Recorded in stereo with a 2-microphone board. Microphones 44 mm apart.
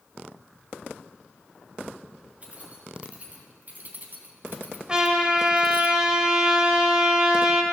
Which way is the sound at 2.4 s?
30° right (ahead or behind).